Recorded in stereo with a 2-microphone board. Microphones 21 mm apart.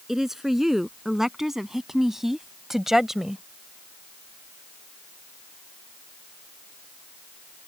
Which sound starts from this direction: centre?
A woman speaking, at 0.1 s.